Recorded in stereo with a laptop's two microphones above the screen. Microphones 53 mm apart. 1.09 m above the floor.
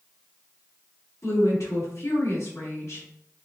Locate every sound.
1.2 s a woman speaking: 70° left (ahead or behind), 2.5 m